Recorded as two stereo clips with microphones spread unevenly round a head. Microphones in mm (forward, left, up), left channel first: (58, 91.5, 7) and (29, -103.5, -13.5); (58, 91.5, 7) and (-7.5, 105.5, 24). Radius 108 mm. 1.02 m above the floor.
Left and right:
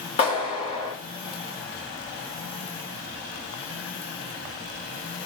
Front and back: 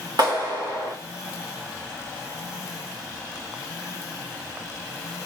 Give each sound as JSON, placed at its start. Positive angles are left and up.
{"t": 0.2, "sound": "a clap", "azimuth_deg": 150, "distance_m": 3.5}